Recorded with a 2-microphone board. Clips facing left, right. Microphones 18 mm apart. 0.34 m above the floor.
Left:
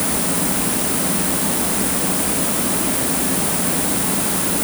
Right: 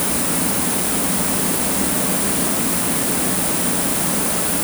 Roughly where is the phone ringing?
No phone ringing in this recording.